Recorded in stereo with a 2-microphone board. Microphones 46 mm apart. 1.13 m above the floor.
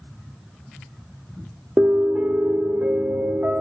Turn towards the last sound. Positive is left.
turn(degrees=-45)  # may be behind; listen again after turning